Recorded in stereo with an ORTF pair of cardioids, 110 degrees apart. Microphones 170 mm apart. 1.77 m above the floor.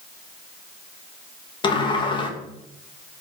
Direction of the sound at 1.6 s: 30° left.